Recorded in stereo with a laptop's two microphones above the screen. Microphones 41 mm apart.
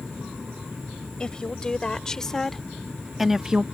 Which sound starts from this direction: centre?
A woman speaking, at 1.2 s.